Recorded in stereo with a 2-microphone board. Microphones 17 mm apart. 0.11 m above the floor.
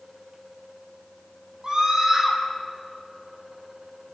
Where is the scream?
30° right (ahead or behind), 5 m.